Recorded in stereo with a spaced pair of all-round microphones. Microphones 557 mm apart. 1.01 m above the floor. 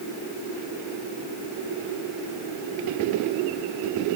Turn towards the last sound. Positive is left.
No sound to turn to.